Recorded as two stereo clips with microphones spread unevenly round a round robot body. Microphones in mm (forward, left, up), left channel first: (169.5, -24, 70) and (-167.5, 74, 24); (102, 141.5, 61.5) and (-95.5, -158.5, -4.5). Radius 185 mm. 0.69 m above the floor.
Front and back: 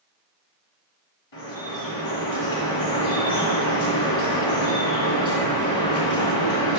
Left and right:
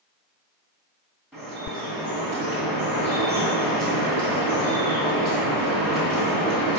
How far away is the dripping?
About 2.5 m.